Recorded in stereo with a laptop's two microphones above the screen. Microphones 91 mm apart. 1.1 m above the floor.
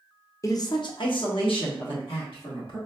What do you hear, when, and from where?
0.4 s a man speaking: 35° left (ahead or behind), 0.5 m; by 2.8 s 70° left (ahead or behind), 1.7 m